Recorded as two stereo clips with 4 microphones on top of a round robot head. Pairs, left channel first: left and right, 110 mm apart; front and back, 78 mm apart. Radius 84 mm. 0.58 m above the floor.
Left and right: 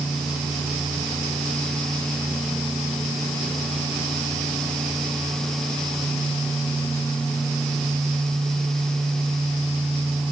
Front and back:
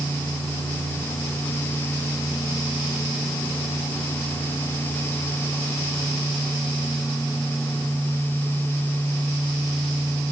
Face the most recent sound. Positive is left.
No sound to turn to.